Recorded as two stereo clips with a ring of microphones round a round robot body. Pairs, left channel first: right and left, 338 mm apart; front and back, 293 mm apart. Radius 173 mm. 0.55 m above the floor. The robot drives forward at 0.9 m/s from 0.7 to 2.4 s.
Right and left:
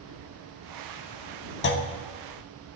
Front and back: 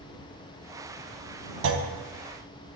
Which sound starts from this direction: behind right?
A clunk, at 1.6 s.